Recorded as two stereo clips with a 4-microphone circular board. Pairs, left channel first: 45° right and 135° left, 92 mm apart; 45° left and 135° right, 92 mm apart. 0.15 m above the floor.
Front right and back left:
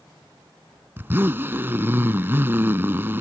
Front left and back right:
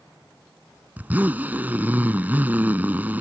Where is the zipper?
175° left.